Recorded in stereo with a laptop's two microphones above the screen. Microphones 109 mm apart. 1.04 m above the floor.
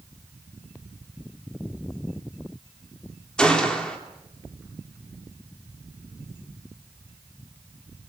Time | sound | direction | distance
3.4 | a gunshot | 10° left (ahead or behind) | 3 m